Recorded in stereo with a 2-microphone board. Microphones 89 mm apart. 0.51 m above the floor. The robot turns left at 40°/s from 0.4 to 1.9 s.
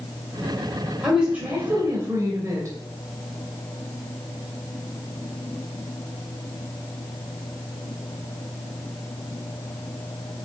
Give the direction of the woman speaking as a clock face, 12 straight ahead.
12 o'clock.